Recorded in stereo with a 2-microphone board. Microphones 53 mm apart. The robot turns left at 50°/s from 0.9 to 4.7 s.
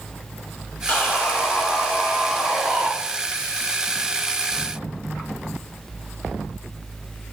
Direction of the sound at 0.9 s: 30° left (ahead or behind).